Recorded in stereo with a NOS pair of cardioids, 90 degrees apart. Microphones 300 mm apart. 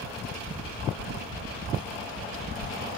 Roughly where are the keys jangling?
Ahead left.